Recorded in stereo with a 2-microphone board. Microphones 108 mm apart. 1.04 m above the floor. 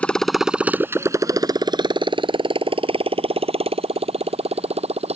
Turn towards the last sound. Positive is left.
turn(degrees=-70)  # may be behind; listen again after turning